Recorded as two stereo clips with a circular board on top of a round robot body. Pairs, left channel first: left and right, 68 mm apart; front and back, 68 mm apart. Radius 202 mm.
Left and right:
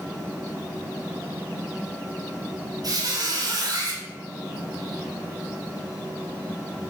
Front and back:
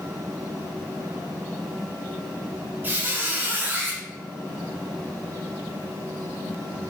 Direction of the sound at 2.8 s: 120° right.